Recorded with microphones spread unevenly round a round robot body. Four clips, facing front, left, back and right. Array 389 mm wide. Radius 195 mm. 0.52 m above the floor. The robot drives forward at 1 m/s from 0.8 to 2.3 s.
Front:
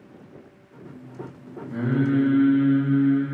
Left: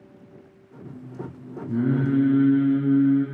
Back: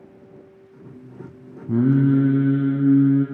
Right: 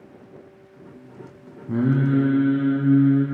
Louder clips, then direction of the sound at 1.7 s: Right 2 dB, back 6 dB; 170° right.